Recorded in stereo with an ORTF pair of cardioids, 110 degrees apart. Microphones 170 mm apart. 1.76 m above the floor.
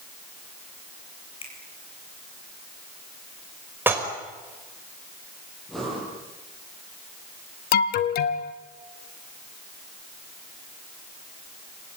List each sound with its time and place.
1.4 s a finger snap: 35° left, 9 m
3.9 s dishes clattering: 10° right, 5.5 m
5.7 s breathing: straight ahead, 9 m
7.7 s an alarm: 65° left, 1.6 m